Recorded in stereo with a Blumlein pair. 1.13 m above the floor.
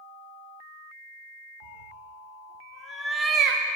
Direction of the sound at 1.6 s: 65° left.